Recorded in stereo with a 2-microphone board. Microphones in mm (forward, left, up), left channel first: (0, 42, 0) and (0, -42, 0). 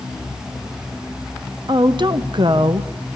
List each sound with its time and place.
1.7 s a woman speaking: 70° right (ahead or behind), 1.1 m